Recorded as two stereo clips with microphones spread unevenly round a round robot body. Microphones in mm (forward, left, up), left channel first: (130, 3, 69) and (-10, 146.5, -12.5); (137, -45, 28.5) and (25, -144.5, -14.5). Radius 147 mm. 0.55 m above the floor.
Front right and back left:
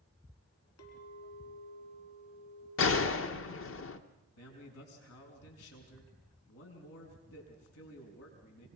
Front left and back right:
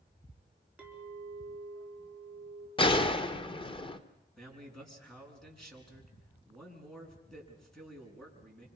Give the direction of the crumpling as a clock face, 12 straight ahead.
I don't hear crumpling.